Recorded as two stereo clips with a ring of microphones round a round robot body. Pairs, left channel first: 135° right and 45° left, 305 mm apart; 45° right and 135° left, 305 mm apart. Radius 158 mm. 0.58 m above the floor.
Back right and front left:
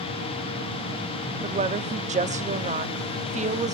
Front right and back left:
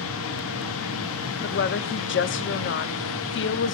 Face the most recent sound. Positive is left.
turn(degrees=-15)